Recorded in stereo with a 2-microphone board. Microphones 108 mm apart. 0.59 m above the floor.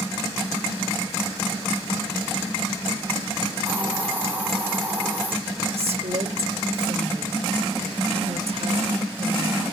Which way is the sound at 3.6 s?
20° right (ahead or behind).